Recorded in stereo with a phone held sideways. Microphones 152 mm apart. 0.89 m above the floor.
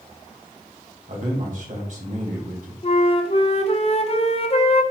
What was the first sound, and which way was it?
A man speaking, 55° right (ahead or behind).